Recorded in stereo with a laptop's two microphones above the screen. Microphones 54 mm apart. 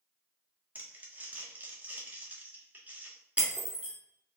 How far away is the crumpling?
About 1.3 m.